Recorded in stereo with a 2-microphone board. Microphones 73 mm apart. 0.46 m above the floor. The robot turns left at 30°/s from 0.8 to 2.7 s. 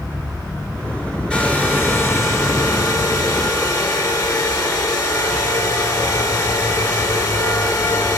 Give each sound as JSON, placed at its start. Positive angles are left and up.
{"t": 1.3, "sound": "a hair dryer", "azimuth_deg": 170, "distance_m": 1.3}